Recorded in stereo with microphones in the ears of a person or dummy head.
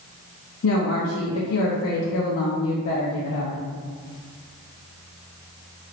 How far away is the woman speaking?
About 0.6 m.